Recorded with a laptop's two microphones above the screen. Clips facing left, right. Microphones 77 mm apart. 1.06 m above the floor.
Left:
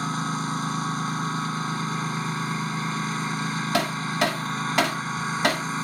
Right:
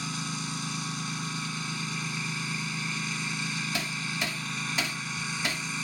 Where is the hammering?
70° left (ahead or behind).